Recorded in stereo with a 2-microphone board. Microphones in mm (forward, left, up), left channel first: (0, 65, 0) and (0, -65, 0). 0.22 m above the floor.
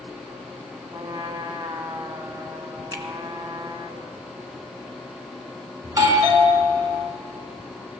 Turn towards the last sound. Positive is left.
turn(degrees=-30)  # may be behind; listen again after turning